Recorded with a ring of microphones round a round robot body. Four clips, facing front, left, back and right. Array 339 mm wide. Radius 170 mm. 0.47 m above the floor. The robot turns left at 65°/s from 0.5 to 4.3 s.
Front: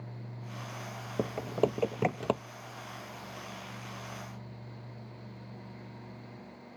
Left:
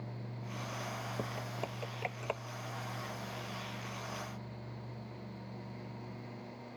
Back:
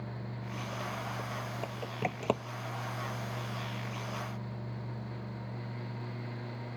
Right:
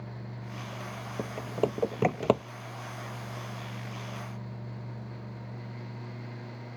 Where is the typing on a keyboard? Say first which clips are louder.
Right 14 dB, front 9 dB; 15° right; by 2.4 s 95° right.